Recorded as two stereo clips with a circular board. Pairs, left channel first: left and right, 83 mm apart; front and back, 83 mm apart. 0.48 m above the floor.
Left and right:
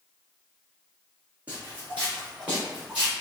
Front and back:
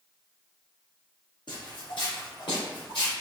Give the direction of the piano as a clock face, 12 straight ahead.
I don't hear a piano.